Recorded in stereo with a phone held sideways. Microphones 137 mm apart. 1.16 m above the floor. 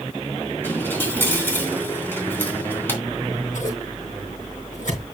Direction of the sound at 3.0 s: 75° left (ahead or behind).